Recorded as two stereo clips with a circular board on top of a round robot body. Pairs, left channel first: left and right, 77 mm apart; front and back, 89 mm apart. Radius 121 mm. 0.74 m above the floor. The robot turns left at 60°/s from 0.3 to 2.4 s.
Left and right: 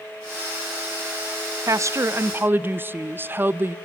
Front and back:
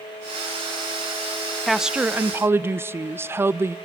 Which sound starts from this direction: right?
A woman speaking, at 1.7 s.